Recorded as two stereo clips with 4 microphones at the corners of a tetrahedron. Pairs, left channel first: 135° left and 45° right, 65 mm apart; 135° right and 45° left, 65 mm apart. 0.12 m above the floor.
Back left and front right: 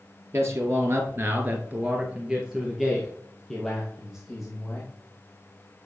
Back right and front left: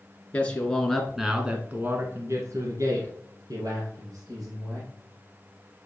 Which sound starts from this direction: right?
A man speaking, at 0.3 s.